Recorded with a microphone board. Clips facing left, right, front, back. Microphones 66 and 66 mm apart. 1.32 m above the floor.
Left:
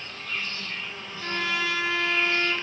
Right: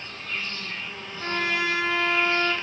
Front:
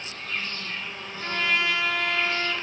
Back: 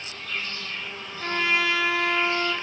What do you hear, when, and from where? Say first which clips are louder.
0.0 s an insect: even, even; 45° right, 1.1 m
1.2 s a trumpet: right 2 dB, back 1 dB; 125° right, 0.8 m